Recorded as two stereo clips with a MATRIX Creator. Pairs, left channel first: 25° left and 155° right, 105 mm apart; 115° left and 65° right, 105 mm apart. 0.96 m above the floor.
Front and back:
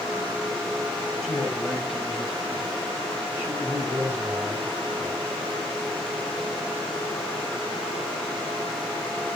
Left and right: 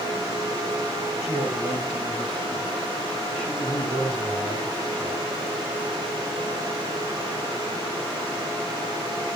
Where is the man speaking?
115° left, 5 m; by 5.3 s 145° left, 6 m.